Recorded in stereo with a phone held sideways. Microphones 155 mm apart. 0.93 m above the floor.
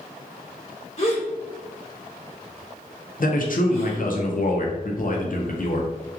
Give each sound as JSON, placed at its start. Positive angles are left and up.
{"t": 1.0, "sound": "a gasp", "side_deg": 45, "distance_m": 1.3}
{"t": 3.2, "sound": "a man speaking", "side_deg": 60, "distance_m": 0.6}